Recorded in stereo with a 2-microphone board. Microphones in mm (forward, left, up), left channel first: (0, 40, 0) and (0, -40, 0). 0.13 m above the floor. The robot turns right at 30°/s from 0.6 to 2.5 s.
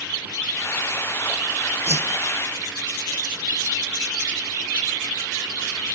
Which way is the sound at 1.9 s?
35° right (ahead or behind).